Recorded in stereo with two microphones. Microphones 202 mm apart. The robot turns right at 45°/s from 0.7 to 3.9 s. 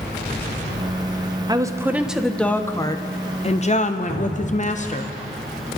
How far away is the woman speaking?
About 0.8 m.